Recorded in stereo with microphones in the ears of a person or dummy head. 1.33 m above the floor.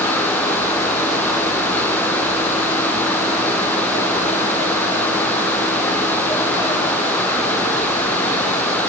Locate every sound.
Only background noise.